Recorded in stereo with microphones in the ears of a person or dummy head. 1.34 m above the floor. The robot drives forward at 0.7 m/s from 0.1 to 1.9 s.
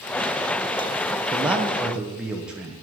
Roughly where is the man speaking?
Centre.